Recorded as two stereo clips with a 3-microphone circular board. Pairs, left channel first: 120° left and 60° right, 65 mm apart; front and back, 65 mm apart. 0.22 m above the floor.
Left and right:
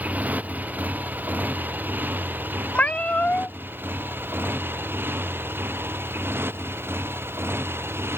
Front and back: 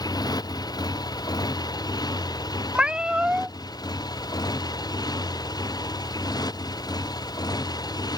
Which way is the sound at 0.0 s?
5° left.